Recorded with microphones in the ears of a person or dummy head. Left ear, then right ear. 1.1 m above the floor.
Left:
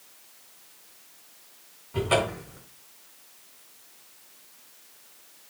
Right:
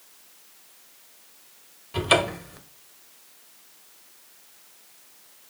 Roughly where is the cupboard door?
Right.